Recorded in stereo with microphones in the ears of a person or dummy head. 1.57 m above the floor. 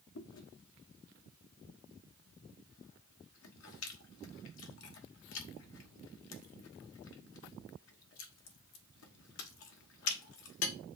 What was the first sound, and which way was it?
Chewing, 80° left.